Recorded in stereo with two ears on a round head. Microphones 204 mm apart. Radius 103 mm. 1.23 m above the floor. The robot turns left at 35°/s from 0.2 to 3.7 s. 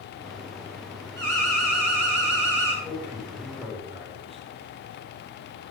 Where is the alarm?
50° right, 7 m; by 2.7 s 105° right, 7 m.